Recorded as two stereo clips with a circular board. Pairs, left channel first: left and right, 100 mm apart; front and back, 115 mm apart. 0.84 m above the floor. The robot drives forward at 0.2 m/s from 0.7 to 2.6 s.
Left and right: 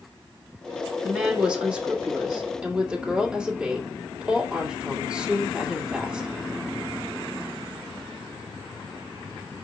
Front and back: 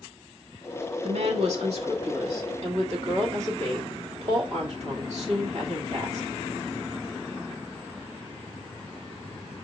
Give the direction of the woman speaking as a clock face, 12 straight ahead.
6 o'clock.